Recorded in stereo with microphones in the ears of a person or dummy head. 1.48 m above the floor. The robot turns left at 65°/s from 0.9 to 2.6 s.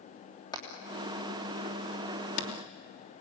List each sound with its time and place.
0.5 s hammering: 25° left (ahead or behind), 3.5 m; by 2.5 s 55° left (ahead or behind), 3.5 m